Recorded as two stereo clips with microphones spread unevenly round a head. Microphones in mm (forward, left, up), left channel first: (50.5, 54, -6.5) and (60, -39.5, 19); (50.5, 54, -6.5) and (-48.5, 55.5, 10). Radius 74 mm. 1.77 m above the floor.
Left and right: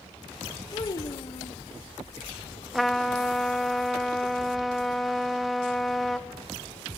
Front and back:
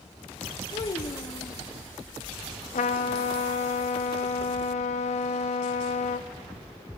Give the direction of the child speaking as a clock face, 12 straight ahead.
11 o'clock.